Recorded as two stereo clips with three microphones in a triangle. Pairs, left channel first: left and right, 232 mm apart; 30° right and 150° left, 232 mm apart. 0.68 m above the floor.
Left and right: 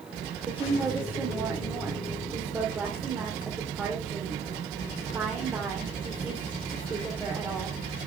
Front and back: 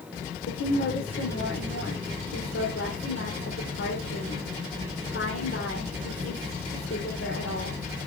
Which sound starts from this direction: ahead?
A woman speaking, at 0.5 s.